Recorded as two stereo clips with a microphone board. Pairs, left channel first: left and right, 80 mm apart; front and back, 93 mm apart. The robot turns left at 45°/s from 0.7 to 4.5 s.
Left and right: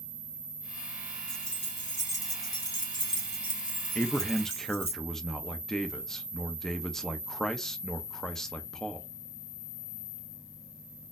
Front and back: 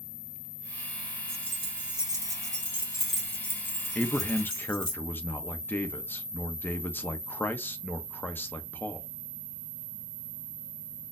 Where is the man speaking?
40° left, 0.6 m; by 9.1 s 15° left, 0.6 m.